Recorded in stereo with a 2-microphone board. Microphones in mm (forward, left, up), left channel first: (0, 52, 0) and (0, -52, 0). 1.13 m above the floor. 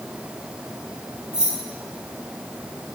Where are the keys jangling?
5° right (ahead or behind), 4.5 m.